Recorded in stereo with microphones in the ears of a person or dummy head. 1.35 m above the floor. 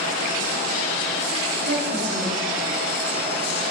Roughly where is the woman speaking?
Right.